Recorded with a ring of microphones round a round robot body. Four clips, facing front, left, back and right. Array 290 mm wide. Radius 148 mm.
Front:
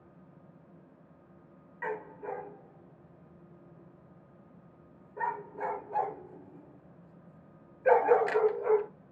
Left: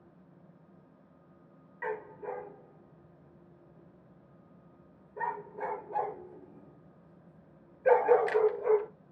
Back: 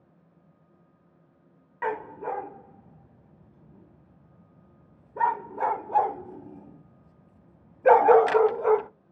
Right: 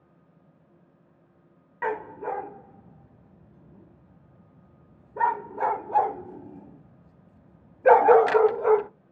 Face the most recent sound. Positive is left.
turn(degrees=-125)